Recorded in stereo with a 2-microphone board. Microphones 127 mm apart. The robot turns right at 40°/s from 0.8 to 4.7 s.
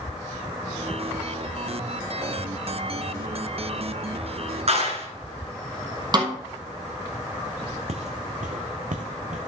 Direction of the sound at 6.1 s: 35° right (ahead or behind).